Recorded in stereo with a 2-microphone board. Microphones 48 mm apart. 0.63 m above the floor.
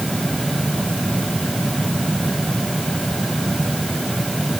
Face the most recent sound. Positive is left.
No sound to turn to.